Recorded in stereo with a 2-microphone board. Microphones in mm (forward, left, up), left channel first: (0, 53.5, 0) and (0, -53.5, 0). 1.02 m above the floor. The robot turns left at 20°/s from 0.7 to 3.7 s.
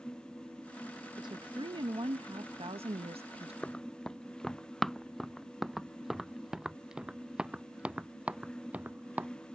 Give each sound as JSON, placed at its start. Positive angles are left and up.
{"t": 1.2, "sound": "a woman speaking", "azimuth_deg": -45}
{"t": 3.6, "sound": "running footsteps", "side_deg": 10}